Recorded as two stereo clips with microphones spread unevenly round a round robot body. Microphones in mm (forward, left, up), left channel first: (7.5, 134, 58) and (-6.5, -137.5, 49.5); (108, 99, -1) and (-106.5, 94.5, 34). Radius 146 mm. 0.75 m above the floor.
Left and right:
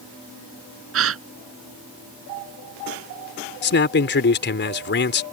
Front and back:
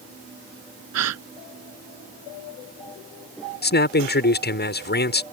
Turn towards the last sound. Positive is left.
turn(degrees=35)